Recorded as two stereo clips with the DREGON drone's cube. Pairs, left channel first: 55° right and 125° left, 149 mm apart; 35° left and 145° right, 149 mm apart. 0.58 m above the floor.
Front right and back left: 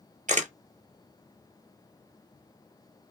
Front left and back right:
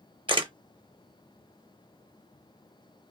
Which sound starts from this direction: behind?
A camera shutter, at 0.3 s.